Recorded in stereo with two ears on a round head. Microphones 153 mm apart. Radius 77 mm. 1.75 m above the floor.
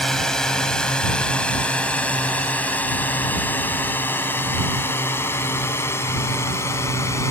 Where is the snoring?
I don't hear snoring.